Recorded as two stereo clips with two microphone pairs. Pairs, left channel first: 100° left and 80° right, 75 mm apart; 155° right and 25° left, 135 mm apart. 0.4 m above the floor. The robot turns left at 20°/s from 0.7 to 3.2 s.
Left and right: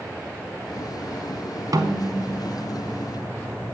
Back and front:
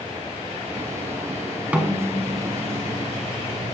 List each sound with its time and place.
1.7 s a snare drum: 55° right, 1.0 m; by 2.6 s 75° right, 1.0 m